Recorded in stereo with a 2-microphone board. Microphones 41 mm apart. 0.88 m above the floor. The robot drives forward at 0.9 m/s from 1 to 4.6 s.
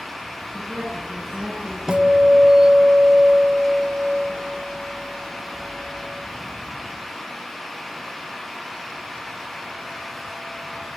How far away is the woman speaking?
About 9.5 m.